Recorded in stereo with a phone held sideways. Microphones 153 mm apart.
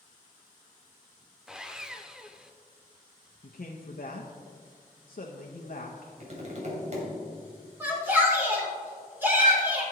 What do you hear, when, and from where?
1.5 s sawing: 5° right (ahead or behind), 0.6 m
3.4 s a man speaking: 65° left (ahead or behind), 0.7 m
6.2 s tapping: 50° right (ahead or behind), 2.5 m
7.8 s a shout: 15° right (ahead or behind), 3 m